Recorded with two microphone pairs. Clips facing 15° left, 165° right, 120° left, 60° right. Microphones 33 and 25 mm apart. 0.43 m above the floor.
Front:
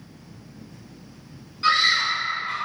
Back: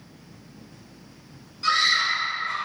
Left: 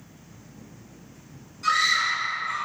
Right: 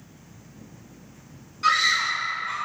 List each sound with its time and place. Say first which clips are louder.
1.6 s a scream: front 2 dB, right 1 dB; 25° right, 1.4 m